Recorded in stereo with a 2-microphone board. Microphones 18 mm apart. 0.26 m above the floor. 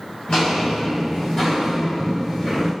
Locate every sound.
0.3 s footsteps: 70° left (ahead or behind), 1.5 m; by 2.7 s 25° left (ahead or behind), 1.8 m